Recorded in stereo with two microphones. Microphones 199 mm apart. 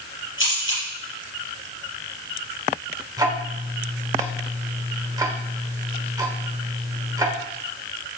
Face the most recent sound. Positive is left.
turn(degrees=-20)  # may be behind; listen again after turning